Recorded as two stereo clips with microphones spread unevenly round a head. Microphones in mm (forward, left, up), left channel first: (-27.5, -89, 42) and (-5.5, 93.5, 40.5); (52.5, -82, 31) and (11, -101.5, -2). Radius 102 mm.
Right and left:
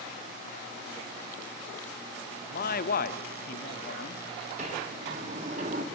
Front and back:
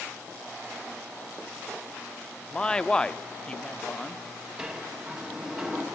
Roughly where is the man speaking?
Ahead right.